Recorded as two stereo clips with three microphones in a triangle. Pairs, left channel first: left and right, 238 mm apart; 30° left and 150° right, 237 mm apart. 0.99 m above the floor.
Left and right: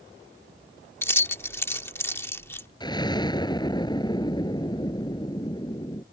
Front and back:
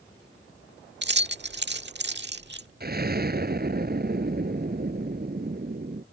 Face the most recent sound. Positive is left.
turn(degrees=160)